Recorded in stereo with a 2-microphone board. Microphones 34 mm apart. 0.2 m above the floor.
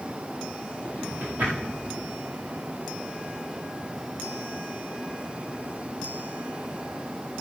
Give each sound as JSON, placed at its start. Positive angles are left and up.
{"t": 0.8, "sound": "a drawer", "side_deg": -75, "distance_m": 7.0}